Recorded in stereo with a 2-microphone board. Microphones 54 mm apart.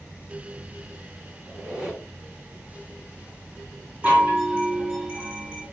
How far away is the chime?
About 1.7 m.